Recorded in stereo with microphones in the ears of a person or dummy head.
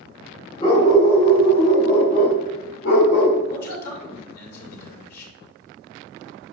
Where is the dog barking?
40° left (ahead or behind), 3 m; by 3.4 s 75° left (ahead or behind), 2.5 m.